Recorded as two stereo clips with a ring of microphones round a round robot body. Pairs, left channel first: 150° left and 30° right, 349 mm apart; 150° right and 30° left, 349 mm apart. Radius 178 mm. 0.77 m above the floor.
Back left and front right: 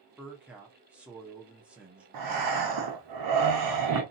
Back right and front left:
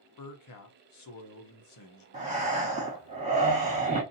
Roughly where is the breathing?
Ahead right.